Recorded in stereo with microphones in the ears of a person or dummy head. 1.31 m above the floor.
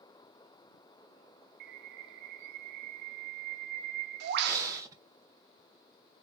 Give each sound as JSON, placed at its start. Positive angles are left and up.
{"t": 1.6, "sound": "a bird", "side_deg": -60, "distance_m": 0.9}
{"t": 4.4, "sound": "breathing", "side_deg": -15, "distance_m": 1.0}